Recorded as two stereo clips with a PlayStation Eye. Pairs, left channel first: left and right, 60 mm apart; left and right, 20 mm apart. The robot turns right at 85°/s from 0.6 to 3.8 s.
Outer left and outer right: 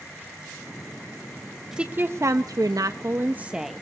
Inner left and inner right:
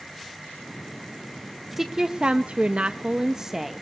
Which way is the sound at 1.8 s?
165° right.